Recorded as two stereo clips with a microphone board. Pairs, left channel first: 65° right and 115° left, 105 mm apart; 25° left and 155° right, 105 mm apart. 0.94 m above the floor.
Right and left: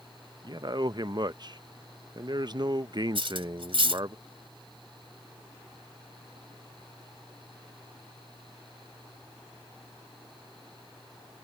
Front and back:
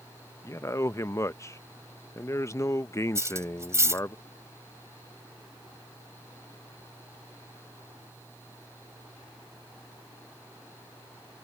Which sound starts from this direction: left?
A man speaking, at 0.4 s.